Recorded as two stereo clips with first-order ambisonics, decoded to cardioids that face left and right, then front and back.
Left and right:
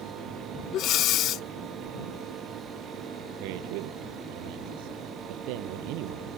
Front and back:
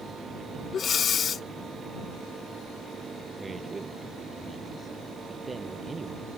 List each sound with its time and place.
0.7 s breathing: 60° left
3.4 s a man speaking: 100° right